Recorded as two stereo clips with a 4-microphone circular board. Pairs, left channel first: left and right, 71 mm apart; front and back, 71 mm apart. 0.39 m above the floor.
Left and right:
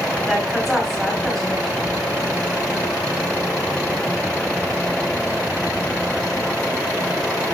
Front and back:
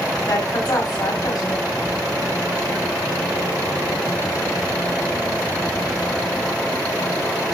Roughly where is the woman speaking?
Ahead.